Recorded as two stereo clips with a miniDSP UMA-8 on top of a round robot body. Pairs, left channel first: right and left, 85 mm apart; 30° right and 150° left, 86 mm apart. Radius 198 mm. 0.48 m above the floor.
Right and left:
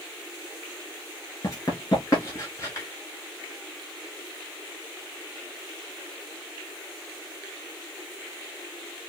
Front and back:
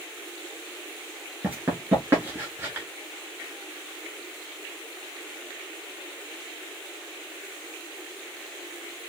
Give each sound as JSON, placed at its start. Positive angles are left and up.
{"t": 1.4, "sound": "running footsteps", "azimuth_deg": -145, "distance_m": 4.5}